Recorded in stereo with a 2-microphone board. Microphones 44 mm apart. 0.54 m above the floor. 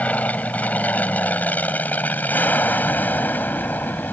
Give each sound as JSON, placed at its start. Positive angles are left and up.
{"t": 0.0, "sound": "an aircraft", "side_deg": 35}